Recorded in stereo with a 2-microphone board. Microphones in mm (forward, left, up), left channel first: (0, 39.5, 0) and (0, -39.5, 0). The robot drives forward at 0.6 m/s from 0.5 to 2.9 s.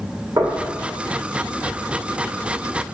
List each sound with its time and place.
0.4 s knocking: 65° right (ahead or behind), 2.0 m